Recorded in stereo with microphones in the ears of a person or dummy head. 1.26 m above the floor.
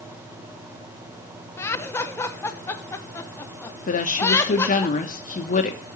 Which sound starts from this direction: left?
A woman speaking, at 3.9 s.